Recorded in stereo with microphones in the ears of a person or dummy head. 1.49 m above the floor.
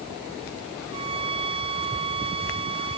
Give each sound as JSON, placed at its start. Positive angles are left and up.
{"t": 0.9, "sound": "a violin", "side_deg": -30}